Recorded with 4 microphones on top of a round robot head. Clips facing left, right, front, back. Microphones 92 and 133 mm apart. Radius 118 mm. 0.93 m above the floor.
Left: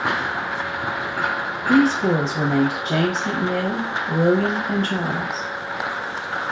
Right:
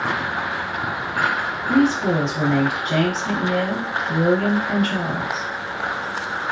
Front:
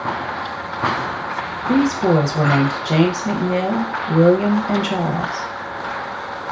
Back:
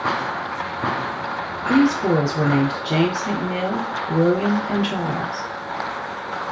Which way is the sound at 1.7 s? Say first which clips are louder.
Left 1 dB, front 1 dB; 40° left.